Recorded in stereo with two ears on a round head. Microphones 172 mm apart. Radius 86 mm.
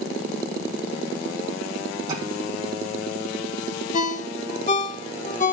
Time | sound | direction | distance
2.1 | tapping | 25° right (ahead or behind) | 10 m
3.9 | a ringtone | 40° left (ahead or behind) | 1.5 m